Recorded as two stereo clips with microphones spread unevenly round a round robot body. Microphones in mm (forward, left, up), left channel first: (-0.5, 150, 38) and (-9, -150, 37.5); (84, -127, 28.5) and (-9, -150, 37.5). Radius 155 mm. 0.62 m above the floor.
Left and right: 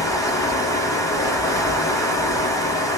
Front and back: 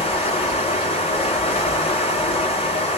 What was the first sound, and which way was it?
Running water, 10° left.